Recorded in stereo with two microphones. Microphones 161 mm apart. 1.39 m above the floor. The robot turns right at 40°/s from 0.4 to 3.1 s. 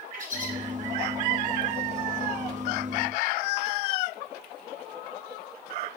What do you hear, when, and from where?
0.1 s a bird: 50° right (ahead or behind), 3.5 m; by 0.5 s 55° right (ahead or behind), 3.5 m